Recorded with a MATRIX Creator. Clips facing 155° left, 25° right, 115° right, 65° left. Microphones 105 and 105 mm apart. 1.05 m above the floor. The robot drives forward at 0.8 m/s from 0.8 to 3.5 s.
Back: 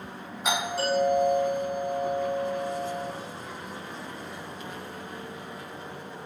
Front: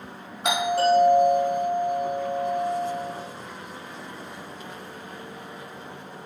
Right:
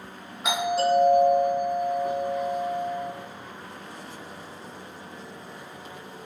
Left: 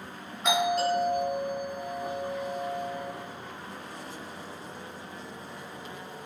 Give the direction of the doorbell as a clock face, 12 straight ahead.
1 o'clock.